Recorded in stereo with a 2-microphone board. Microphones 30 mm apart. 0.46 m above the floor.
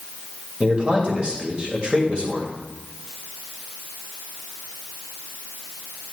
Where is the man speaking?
30° right (ahead or behind), 2.5 m.